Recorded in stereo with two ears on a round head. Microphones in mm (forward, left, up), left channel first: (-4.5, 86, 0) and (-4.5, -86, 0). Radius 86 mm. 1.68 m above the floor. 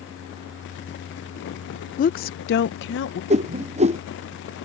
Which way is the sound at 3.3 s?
35° right (ahead or behind).